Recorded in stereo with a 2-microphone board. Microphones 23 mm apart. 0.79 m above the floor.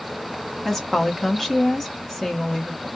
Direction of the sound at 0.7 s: 25° left (ahead or behind).